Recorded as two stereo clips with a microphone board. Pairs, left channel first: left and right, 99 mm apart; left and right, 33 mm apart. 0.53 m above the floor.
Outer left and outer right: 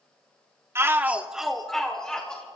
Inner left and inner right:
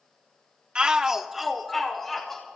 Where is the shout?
25° right (ahead or behind), 0.7 m; by 2.5 s 10° left (ahead or behind), 1.9 m.